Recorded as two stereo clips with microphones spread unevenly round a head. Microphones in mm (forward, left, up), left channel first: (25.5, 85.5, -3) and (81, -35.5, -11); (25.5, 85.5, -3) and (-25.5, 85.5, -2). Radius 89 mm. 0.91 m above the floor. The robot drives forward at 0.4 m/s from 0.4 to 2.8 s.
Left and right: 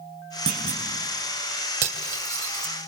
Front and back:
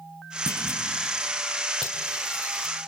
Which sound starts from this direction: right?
Cutlery clinking, at 1.8 s.